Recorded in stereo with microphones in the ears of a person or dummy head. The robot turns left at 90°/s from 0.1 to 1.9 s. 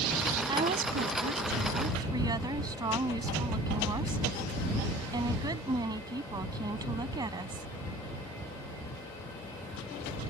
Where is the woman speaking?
25° right; by 7.7 s 150° right.